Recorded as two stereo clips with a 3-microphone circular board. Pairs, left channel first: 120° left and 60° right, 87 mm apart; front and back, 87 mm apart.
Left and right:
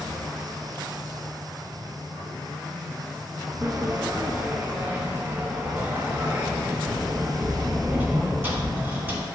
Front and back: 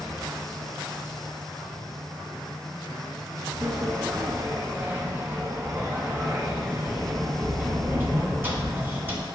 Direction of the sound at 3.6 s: 120° right.